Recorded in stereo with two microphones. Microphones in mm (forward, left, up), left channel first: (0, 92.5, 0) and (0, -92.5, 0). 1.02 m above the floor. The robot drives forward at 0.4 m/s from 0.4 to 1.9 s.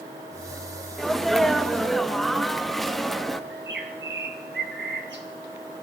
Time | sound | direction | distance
1.0 | a sneeze | centre (ahead or behind) | 0.9 m
3.5 | a bird | 70° right (ahead or behind) | 1.9 m